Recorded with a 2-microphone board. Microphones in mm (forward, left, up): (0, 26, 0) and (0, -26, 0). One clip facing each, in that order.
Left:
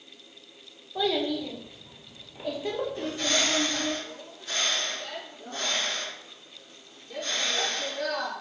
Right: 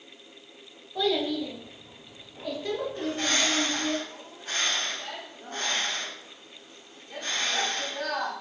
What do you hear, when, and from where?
0.9 s a child speaking: 10° left (ahead or behind), 0.7 m
3.0 s a bird: 40° right (ahead or behind), 1.5 m